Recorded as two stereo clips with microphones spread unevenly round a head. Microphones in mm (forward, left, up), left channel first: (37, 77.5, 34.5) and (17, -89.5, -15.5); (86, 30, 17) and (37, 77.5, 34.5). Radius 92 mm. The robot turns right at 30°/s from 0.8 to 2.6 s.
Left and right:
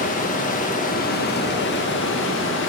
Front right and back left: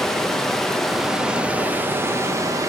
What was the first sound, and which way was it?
Running water, 45° left.